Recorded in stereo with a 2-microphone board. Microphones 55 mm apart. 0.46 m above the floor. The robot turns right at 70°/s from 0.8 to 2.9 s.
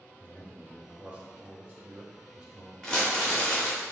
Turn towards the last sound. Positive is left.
turn(degrees=15)  # may be behind; listen again after turning